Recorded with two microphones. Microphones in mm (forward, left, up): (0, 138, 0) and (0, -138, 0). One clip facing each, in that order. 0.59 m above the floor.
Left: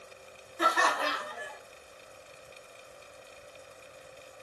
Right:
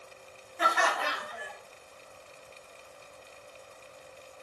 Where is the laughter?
50° left (ahead or behind), 0.8 m.